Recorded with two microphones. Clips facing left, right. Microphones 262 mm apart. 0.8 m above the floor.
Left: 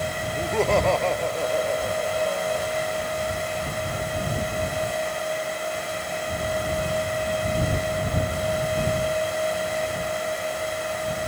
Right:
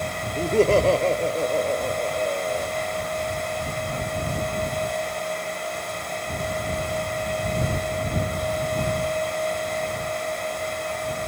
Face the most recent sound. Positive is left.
turn(degrees=-30)  # may be behind; listen again after turning